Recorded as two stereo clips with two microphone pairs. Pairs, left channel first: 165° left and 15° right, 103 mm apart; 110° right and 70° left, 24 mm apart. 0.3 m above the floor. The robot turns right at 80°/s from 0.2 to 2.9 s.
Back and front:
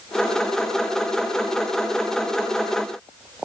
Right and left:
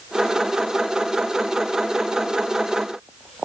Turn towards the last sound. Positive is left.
No sound to turn to.